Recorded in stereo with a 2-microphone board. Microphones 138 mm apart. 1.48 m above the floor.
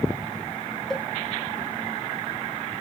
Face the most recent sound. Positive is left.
turn(degrees=5)  # may be behind; listen again after turning